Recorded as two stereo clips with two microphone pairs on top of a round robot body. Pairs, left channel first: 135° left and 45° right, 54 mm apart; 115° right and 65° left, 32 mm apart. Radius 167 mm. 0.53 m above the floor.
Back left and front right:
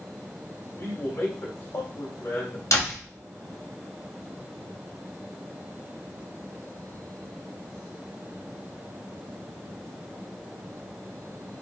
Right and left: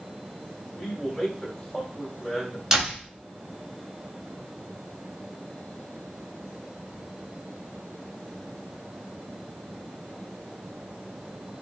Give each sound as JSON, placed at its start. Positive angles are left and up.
{"t": 0.8, "sound": "a man speaking", "azimuth_deg": 165, "distance_m": 3.5}
{"t": 2.7, "sound": "a door slam", "azimuth_deg": 135, "distance_m": 3.0}